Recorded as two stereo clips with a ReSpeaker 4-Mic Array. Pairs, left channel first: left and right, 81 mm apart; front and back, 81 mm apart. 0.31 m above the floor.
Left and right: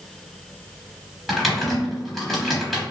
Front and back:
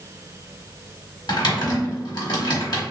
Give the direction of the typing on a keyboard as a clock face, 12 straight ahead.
12 o'clock.